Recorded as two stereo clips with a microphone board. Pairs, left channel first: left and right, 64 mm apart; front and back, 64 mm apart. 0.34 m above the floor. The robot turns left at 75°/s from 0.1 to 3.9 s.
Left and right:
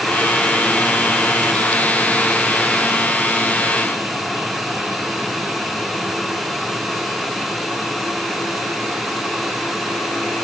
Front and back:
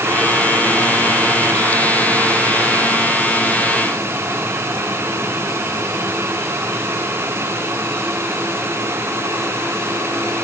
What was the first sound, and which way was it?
Only background noise.